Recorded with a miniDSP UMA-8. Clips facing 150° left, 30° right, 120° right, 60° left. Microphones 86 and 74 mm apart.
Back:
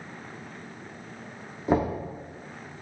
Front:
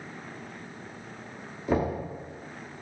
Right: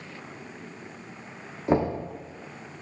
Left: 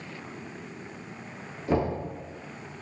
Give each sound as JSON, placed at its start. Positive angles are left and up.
{"t": 1.7, "sound": "knocking", "azimuth_deg": -165, "distance_m": 1.1}